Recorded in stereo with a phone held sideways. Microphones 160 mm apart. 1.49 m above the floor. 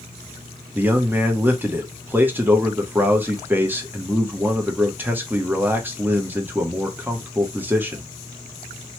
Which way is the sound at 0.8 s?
10° right (ahead or behind).